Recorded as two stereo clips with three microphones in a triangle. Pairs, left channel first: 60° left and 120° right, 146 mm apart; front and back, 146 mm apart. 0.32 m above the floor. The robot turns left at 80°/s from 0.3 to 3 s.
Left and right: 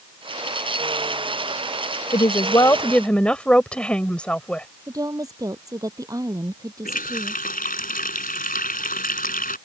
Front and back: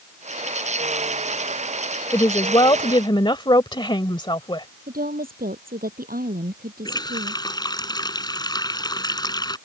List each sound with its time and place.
2.1 s a woman speaking: 50° left; by 4.7 s 20° right
4.9 s a woman speaking: 175° left
6.8 s a running tap: 60° left